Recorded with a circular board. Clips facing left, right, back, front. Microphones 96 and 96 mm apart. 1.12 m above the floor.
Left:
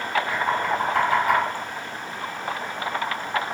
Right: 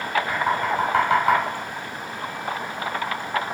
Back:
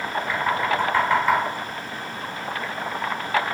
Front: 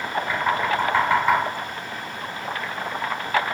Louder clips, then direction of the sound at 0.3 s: Right 1 dB, even; 70° right.